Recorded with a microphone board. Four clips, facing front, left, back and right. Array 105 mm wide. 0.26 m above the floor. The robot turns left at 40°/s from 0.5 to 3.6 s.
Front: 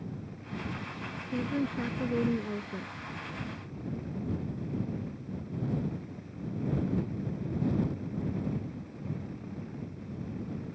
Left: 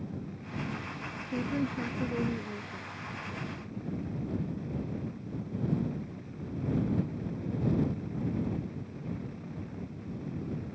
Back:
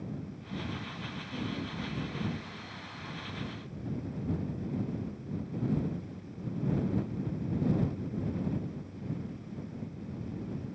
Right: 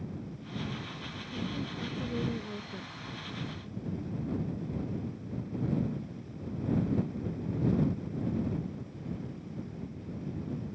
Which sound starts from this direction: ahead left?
A woman speaking, at 1.3 s.